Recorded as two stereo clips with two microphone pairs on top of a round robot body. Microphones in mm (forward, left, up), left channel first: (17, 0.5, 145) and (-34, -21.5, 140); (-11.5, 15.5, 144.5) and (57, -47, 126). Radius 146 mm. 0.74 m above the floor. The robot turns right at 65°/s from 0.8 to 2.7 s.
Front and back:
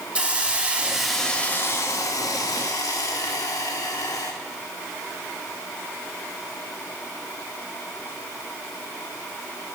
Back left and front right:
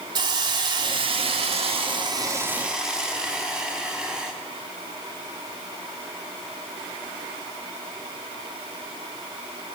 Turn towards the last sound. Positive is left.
turn(degrees=40)